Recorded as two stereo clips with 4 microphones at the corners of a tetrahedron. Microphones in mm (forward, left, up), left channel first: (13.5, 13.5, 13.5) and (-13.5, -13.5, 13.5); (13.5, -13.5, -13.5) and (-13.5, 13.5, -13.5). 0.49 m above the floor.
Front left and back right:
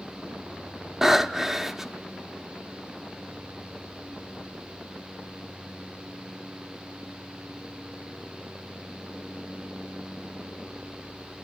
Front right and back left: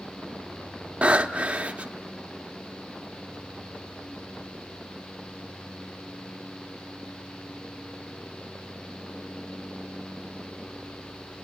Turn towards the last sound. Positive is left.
turn(degrees=150)